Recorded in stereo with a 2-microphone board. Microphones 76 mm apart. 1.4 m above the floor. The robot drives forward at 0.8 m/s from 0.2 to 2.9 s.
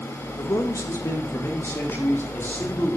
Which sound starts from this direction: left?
A man speaking, at 0.4 s.